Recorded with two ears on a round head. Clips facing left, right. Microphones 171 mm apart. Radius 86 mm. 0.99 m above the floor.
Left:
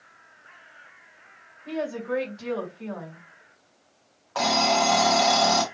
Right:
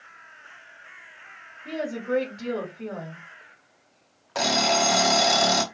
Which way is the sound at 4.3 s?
25° right (ahead or behind).